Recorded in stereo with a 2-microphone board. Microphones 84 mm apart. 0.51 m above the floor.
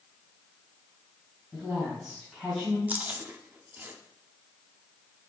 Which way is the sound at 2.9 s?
20° right (ahead or behind).